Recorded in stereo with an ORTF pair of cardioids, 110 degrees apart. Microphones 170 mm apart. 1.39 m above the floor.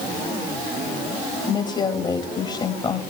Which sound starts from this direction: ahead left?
A woman speaking, at 1.5 s.